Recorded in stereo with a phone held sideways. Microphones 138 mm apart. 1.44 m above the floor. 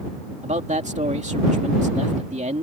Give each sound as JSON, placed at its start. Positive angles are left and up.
{"t": 0.4, "sound": "a man speaking", "side_deg": -60}